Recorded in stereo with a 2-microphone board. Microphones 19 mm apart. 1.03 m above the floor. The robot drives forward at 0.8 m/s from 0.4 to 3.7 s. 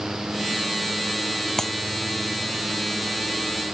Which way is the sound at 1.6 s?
20° left (ahead or behind).